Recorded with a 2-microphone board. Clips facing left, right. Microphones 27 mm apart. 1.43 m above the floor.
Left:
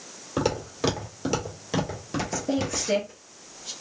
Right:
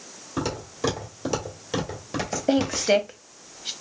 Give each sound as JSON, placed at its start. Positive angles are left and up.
{"t": 0.4, "sound": "footsteps", "side_deg": 30, "distance_m": 1.8}
{"t": 2.5, "sound": "a woman speaking", "side_deg": -45, "distance_m": 0.7}